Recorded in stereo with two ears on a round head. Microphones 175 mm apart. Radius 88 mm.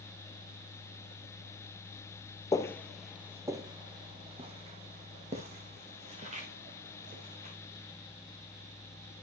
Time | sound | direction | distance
2.5 | footsteps | 15° left (ahead or behind) | 0.7 m